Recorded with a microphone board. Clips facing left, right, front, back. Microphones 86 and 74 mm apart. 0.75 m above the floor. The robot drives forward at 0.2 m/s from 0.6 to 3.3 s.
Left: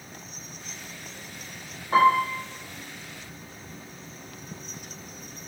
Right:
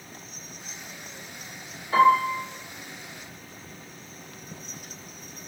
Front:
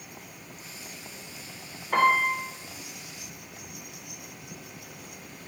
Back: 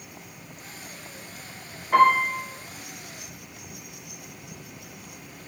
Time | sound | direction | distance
1.9 | a piano | 105° left | 1.4 m